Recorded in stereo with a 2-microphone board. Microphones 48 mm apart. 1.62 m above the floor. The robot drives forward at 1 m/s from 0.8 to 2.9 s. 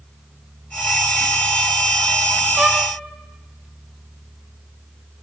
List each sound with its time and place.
2.6 s a violin: 20° right (ahead or behind), 0.6 m; by 2.9 s 15° right (ahead or behind), 0.9 m